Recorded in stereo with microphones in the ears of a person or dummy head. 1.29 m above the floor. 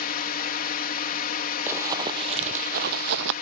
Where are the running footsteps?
10° right (ahead or behind); by 3.3 s 60° right (ahead or behind).